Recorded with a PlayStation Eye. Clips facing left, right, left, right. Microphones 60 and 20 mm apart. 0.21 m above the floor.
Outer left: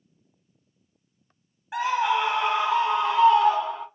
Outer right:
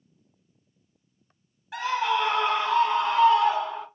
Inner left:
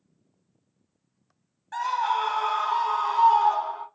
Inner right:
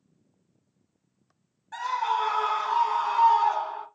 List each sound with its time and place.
1.7 s a scream: 20° left (ahead or behind), 1.0 m; by 3.9 s centre (ahead or behind), 1.4 m